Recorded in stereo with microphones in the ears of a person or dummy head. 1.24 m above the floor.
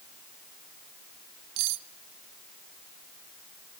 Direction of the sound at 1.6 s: 75° right (ahead or behind).